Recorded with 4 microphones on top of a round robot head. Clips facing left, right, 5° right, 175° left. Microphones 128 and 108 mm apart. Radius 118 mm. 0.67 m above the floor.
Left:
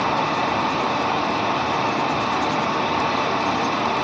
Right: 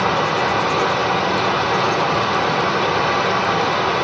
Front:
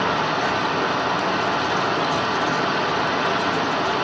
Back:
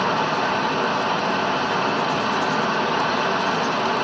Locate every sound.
0.0 s running water: 80° right, 1.9 m